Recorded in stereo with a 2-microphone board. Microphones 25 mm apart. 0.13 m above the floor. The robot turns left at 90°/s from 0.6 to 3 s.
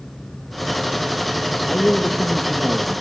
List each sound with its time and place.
1.7 s a man speaking: 45° left, 3 m; by 3.0 s 75° right, 3 m